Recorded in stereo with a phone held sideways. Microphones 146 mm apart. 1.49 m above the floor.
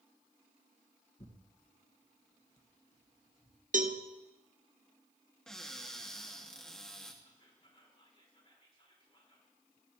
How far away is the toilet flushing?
I don't hear a toilet flushing.